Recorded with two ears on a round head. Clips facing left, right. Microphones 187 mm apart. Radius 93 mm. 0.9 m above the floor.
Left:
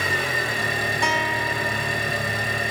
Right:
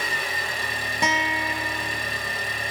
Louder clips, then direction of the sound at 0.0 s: Left 5 dB; 70° left (ahead or behind).